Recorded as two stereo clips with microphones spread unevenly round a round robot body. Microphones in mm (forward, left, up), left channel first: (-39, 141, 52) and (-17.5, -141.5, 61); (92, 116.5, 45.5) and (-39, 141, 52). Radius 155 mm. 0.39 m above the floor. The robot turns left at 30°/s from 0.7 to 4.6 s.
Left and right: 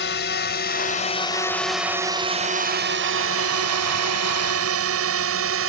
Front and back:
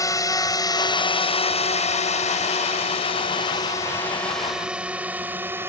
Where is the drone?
50° left; by 5.7 s 115° right.